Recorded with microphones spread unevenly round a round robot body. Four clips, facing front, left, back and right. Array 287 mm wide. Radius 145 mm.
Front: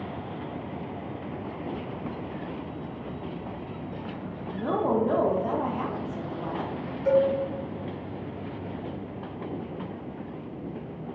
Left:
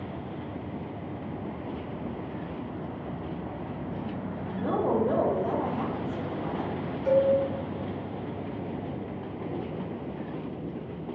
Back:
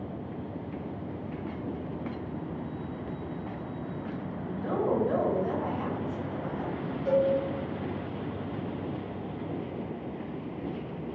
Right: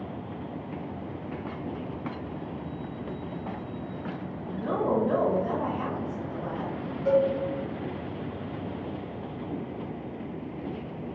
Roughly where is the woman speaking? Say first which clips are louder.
Even, front 3 dB; ahead.